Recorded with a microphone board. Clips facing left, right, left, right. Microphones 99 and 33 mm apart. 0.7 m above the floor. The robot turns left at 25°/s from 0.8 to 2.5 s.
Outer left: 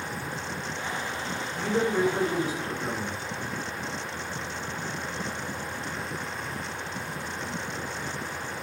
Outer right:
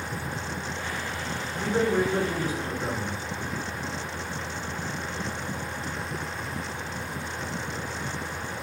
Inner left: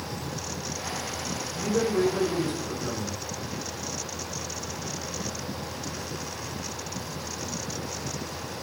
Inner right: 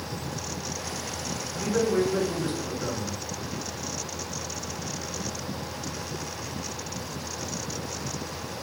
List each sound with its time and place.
1.5 s a man speaking: 60° right (ahead or behind), 1.9 m; by 3.2 s 40° right (ahead or behind), 1.9 m